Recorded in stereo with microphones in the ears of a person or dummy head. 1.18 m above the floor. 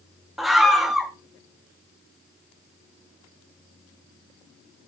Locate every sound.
0.4 s a scream: centre (ahead or behind), 1.6 m